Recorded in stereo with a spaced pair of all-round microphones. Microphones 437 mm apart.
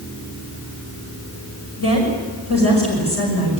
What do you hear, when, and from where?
1.8 s a woman speaking: 30° left (ahead or behind), 6 m